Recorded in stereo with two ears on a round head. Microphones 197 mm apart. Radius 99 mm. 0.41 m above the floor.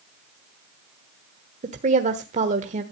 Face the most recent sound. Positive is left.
turn(degrees=-35)  # may be behind; listen again after turning